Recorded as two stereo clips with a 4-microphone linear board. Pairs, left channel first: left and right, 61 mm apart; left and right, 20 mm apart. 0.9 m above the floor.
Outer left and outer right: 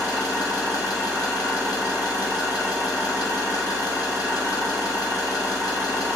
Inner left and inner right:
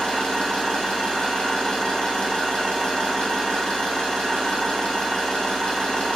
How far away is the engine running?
About 0.8 m.